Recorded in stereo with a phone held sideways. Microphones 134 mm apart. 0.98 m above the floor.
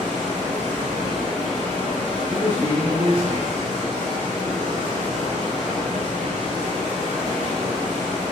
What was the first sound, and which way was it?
Running water, 65° right (ahead or behind).